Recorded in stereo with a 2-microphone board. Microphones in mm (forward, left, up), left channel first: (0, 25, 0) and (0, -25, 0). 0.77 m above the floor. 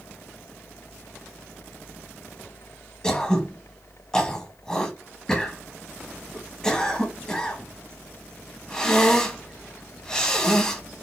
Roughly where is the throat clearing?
Centre.